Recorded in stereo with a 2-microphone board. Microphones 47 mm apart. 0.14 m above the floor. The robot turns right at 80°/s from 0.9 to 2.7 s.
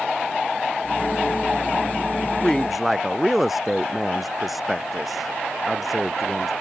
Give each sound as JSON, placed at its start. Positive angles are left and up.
{"t": 2.4, "sound": "a woman speaking", "side_deg": 20}